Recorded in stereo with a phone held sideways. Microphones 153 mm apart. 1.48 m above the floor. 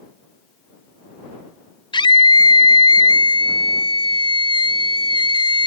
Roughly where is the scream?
Left.